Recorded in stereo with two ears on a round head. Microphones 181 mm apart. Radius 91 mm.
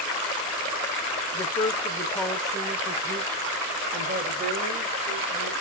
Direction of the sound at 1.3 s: 35° left (ahead or behind).